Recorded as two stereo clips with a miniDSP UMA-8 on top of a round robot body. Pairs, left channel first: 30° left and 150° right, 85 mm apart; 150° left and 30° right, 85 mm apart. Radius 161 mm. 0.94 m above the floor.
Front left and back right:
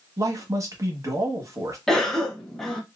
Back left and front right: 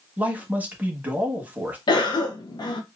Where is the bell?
I don't hear a bell.